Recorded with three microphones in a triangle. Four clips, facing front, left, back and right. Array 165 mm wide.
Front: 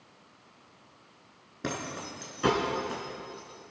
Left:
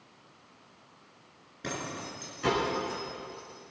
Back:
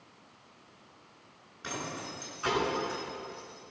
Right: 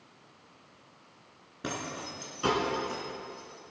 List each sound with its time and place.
1.6 s keys jangling: 20° right, 4.5 m; by 3.6 s straight ahead, 4 m